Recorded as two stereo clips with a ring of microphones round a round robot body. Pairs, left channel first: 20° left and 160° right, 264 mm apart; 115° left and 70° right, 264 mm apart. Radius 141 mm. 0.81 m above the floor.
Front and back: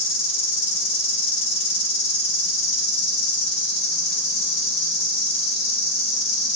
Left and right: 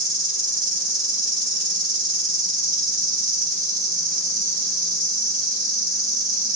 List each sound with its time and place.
0.0 s an insect: 10° right, 1.7 m